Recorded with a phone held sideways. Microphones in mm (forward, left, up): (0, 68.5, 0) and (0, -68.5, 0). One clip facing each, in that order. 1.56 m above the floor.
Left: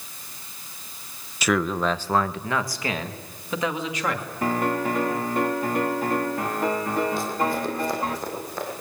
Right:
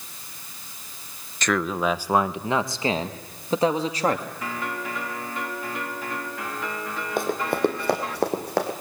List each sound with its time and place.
1.4 s a man speaking: 10° left (ahead or behind), 0.8 m; by 4.3 s 35° right (ahead or behind), 2.5 m
4.4 s a piano: 45° left (ahead or behind), 1.9 m
7.2 s running footsteps: 55° right (ahead or behind), 3 m; by 8.7 s 65° right (ahead or behind), 4 m